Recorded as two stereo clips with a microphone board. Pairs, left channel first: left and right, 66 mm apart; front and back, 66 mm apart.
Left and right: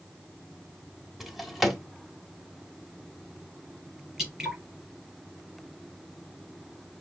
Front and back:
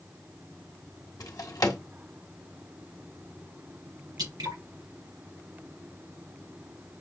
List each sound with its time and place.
1.2 s a drawer: 5° right, 1.2 m
4.2 s dripping: 170° right, 3.5 m